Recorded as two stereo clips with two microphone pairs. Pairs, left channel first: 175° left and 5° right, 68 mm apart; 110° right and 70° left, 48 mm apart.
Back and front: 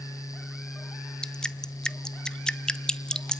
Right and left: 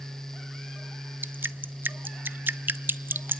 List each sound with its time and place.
1.2 s dripping: 95° left, 0.6 m